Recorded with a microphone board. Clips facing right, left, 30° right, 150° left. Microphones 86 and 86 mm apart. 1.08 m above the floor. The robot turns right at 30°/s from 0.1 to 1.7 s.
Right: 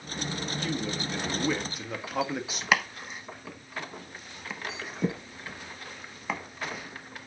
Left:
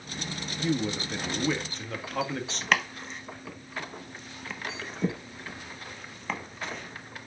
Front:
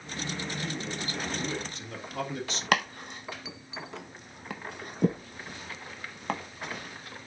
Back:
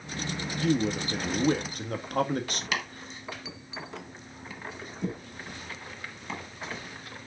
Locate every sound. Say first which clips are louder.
0.6 s a man speaking: left 6 dB, back 9 dB; 155° left, 1.6 m; by 2.6 s 170° right, 1.6 m
2.7 s chopping: right 1 dB, front 11 dB; 5° right, 1.3 m